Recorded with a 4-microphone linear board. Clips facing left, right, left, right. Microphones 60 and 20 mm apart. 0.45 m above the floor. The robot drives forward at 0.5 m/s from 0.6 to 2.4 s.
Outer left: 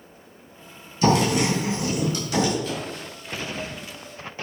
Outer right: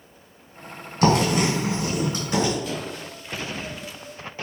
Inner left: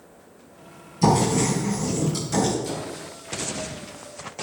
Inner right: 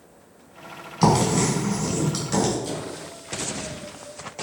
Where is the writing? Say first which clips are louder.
Even, even; 55° right (ahead or behind), 1.0 m; by 2.5 s 30° right (ahead or behind), 1.5 m.